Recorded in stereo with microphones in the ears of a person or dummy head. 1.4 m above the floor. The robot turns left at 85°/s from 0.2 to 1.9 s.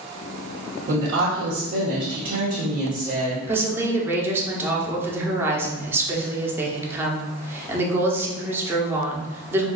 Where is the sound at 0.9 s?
45° right, 1.0 m; by 3.4 s 135° right, 1.0 m.